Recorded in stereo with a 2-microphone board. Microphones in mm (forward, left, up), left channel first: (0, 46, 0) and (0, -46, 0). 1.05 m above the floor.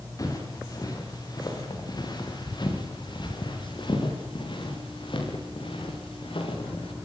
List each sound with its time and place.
0.2 s footsteps: 40° left (ahead or behind), 5.5 m; by 6.9 s 70° left (ahead or behind), 6.5 m